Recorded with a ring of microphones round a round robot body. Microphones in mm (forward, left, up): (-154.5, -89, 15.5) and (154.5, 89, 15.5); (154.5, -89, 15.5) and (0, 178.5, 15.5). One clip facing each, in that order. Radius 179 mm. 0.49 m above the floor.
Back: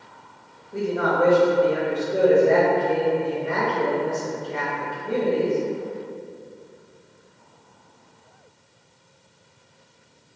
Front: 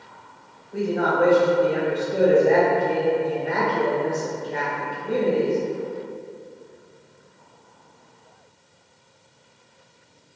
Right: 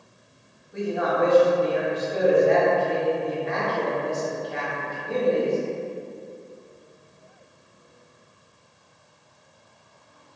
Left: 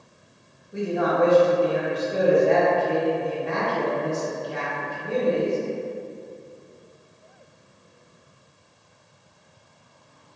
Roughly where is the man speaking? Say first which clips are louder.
Front 1 dB, left 2 dB; behind left.